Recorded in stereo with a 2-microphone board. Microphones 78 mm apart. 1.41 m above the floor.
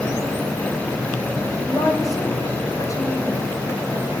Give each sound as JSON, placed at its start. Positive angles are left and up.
{"t": 1.6, "sound": "a woman speaking", "side_deg": 45, "distance_m": 5.5}